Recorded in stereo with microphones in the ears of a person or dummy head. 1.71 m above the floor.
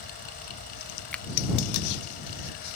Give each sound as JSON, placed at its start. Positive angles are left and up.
{"t": 0.0, "sound": "a fan", "side_deg": 50}
{"t": 1.1, "sound": "a finger snap", "side_deg": 5}